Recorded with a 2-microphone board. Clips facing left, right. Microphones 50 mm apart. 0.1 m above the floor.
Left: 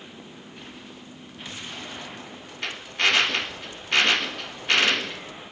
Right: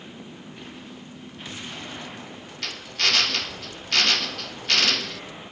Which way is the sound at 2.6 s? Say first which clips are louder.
Left 3 dB; 20° left (ahead or behind).